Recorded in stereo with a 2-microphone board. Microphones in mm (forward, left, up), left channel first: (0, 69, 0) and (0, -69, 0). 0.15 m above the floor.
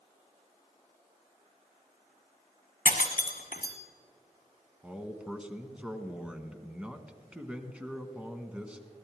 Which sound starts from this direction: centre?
A man speaking, at 4.8 s.